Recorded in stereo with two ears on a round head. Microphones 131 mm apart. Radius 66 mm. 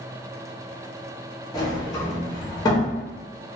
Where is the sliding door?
25° left (ahead or behind), 1.1 m.